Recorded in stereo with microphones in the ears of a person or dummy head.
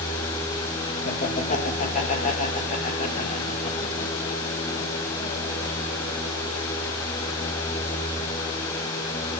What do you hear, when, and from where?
1.1 s laughter: 45° left (ahead or behind), 2.0 m